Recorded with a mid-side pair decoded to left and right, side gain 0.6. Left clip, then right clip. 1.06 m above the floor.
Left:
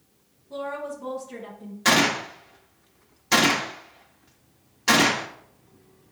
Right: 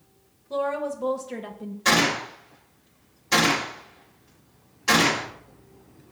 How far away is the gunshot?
About 1.1 m.